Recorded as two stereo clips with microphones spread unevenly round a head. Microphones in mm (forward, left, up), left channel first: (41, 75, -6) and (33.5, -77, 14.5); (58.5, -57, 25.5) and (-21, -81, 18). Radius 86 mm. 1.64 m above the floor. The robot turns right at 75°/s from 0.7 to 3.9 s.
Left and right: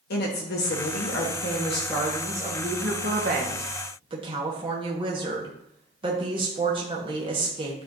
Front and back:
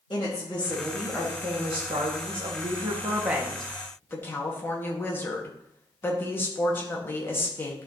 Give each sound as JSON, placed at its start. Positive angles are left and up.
{"t": 0.1, "sound": "a woman speaking", "azimuth_deg": 75, "distance_m": 1.2}